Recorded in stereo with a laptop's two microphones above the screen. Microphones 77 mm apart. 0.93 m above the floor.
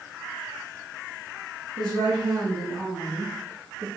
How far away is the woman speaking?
About 1.6 m.